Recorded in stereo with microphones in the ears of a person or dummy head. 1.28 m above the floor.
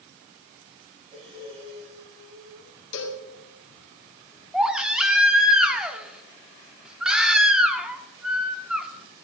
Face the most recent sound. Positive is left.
turn(degrees=-5)  # may be behind; listen again after turning